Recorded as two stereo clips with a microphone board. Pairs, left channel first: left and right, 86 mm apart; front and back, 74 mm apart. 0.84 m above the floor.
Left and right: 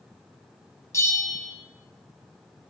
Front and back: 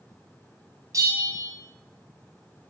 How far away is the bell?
About 2 m.